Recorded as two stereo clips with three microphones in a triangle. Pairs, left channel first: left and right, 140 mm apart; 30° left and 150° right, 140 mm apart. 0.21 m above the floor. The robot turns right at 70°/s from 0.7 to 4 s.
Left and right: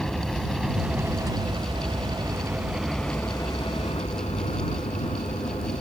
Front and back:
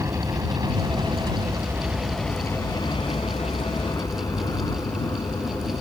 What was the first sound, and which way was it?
A helicopter, 175° left.